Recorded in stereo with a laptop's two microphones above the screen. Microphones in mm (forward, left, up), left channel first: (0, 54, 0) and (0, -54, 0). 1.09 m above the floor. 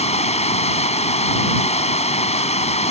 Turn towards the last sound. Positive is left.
turn(degrees=85)